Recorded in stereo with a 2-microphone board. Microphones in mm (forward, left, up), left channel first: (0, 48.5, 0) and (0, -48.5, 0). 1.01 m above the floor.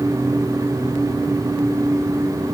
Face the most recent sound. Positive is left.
No sound to turn to.